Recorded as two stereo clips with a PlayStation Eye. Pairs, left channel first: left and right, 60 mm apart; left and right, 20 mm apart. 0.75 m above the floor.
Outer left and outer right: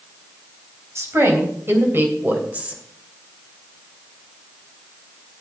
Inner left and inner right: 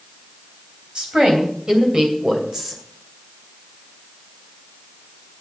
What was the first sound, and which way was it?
A woman speaking, 50° right (ahead or behind).